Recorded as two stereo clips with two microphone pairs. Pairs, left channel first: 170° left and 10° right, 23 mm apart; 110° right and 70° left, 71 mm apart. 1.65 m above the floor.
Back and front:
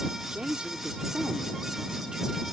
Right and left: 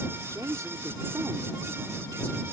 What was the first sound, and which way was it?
A woman speaking, 25° left.